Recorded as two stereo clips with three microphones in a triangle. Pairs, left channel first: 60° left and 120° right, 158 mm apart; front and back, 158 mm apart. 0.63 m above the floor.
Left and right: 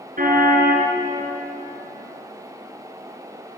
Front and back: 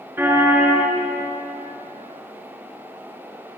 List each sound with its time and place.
0.2 s a car horn: 105° right, 4.5 m